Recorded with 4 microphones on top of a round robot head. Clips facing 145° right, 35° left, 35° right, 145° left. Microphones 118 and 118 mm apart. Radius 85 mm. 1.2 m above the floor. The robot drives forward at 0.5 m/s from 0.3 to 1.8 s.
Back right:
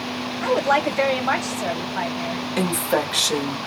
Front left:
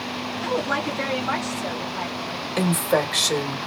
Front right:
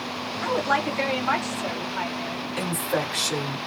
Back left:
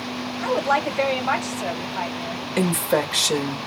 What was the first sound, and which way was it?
A woman speaking, 155° right.